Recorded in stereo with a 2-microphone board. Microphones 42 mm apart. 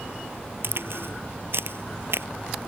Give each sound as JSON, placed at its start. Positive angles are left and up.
{"t": 0.6, "sound": "a crack", "side_deg": -65}